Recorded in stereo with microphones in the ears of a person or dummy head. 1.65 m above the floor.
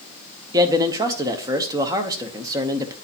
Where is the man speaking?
20° right (ahead or behind), 0.8 m.